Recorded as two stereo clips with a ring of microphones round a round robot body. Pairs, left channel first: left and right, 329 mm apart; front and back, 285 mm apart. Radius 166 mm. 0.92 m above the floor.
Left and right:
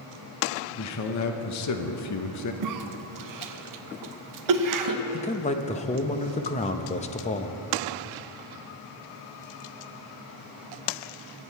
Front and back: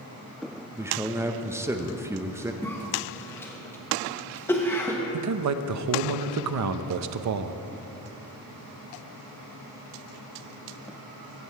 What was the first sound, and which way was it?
A man speaking, 100° left.